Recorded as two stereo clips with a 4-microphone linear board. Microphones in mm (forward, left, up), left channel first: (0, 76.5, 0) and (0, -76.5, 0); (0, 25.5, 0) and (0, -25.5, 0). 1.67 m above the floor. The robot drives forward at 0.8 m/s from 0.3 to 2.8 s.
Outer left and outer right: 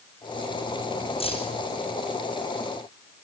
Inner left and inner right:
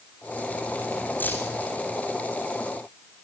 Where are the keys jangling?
40° left (ahead or behind), 7 m.